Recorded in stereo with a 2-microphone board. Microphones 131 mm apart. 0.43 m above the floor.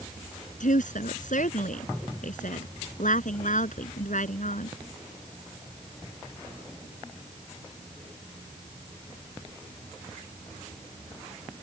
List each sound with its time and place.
0.6 s a woman speaking: 75° left (ahead or behind)